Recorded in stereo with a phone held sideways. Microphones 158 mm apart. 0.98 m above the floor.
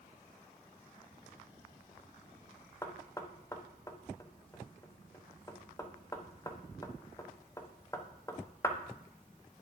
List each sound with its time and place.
2.8 s knocking: 20° left (ahead or behind), 0.8 m